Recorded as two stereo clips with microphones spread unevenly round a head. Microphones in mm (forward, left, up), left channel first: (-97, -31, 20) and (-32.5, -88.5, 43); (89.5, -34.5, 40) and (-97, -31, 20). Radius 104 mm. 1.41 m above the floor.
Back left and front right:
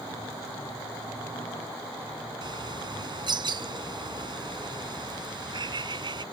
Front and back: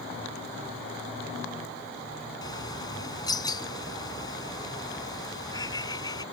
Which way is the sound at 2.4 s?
70° right.